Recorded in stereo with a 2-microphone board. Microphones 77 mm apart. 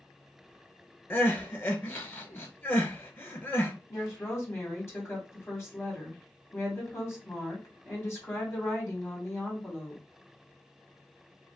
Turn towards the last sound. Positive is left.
turn(degrees=35)  # may be behind; listen again after turning